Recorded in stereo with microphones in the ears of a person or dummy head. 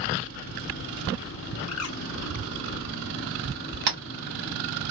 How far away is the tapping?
About 1.0 m.